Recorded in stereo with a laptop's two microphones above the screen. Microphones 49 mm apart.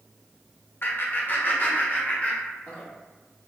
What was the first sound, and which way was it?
Laughter, 45° left (ahead or behind).